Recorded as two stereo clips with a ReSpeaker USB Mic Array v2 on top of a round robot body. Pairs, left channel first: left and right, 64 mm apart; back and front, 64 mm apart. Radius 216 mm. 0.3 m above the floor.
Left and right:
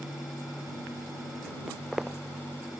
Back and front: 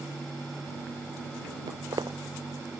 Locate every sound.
1.7 s footsteps: 10° right